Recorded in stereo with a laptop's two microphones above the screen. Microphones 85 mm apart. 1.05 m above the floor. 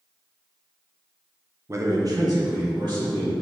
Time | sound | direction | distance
1.7 | a man speaking | 30° right (ahead or behind) | 0.5 m